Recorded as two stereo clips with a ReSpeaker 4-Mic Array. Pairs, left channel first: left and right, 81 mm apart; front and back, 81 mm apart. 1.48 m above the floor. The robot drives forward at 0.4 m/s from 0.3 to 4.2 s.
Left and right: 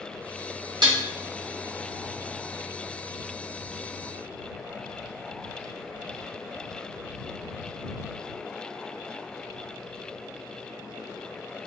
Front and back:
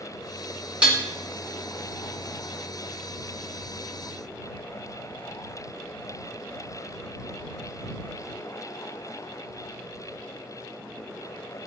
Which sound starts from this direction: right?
Dishes clattering, at 0.8 s.